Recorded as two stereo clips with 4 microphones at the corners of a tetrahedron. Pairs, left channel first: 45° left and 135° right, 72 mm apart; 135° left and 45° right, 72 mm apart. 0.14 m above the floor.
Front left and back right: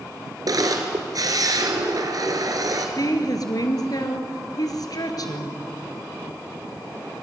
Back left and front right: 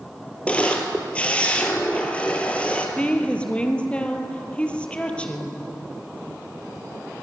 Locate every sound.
0.5 s a camera shutter: 155° right, 2 m
3.0 s a woman speaking: 65° left, 2.5 m